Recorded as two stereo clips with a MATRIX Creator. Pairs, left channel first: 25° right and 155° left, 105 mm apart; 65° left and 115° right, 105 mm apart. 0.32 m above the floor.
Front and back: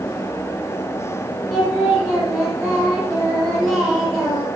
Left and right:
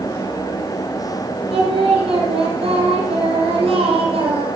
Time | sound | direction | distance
1.5 | singing | 120° right | 5.5 m